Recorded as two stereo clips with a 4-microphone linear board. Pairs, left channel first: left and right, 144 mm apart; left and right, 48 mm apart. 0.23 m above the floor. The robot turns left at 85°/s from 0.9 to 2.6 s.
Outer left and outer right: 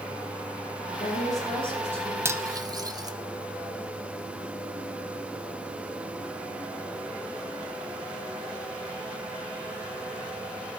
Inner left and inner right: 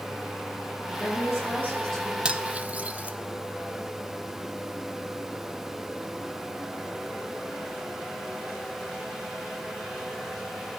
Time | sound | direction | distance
0.9 | a woman speaking | 100° left | 4.5 m
2.2 | cutlery clinking | 20° right (ahead or behind) | 0.6 m